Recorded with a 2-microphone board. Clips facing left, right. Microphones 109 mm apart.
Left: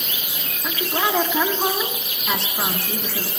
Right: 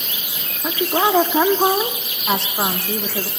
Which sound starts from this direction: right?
A woman speaking, at 0.6 s.